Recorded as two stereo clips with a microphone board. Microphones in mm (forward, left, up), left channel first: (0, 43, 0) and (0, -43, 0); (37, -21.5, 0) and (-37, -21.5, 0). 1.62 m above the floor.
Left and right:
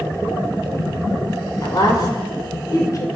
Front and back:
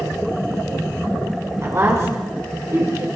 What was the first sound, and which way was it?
A woman speaking, 130° left.